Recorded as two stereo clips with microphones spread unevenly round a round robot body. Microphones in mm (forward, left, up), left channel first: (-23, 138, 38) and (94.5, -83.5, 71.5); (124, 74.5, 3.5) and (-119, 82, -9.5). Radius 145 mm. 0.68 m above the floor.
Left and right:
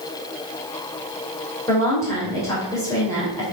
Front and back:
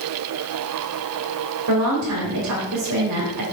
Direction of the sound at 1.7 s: 165° right.